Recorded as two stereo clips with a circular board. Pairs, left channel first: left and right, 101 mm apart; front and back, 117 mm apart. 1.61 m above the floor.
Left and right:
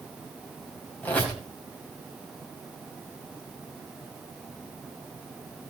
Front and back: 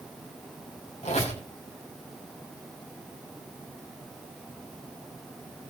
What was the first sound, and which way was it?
A squeak, 15° left.